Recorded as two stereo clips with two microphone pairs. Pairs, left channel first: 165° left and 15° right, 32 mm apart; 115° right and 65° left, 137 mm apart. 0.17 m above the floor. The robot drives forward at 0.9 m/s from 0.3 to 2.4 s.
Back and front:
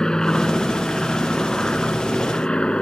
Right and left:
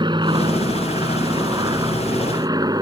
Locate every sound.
0.0 s an aircraft: 105° left; by 2.8 s 115° left